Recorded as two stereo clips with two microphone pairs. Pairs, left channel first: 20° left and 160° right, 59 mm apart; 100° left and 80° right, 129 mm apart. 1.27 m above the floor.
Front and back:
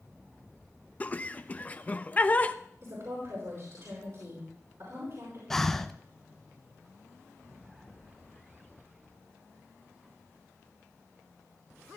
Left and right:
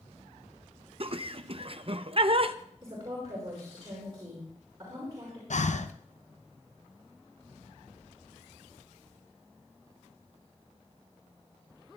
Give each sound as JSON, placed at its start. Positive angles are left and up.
{"t": 1.0, "sound": "laughter", "azimuth_deg": -35, "distance_m": 0.6}
{"t": 2.8, "sound": "a woman speaking", "azimuth_deg": -140, "distance_m": 5.0}
{"t": 5.5, "sound": "breathing", "azimuth_deg": 100, "distance_m": 0.5}